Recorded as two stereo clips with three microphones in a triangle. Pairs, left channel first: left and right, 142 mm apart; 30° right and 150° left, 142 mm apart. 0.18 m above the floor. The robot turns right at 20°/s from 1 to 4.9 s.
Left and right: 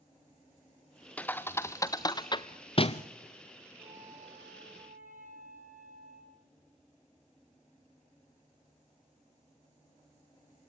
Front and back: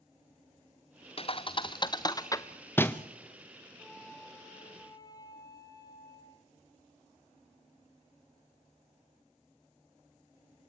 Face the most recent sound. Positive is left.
turn(degrees=-95)